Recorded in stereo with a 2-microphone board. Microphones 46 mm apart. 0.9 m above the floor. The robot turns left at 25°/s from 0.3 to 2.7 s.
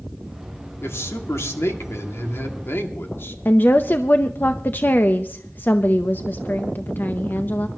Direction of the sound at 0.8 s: 110° left.